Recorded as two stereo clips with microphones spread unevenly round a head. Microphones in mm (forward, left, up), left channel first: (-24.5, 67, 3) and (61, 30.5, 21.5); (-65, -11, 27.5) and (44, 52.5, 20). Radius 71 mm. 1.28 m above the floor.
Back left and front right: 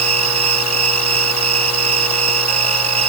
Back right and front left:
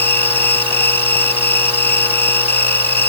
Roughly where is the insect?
Right.